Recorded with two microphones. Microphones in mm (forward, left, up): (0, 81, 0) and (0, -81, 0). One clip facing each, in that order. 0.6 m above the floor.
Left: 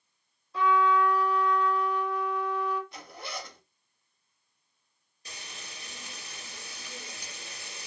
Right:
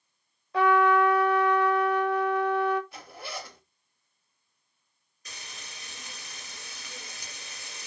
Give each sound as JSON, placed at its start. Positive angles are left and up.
{"t": 0.5, "sound": "a trumpet", "side_deg": -75, "distance_m": 0.8}
{"t": 2.9, "sound": "a zipper", "side_deg": -5, "distance_m": 1.2}
{"t": 5.2, "sound": "frying", "side_deg": 30, "distance_m": 2.0}